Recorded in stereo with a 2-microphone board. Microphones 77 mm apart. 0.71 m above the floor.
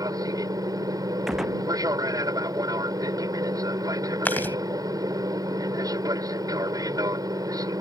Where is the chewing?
25° left (ahead or behind).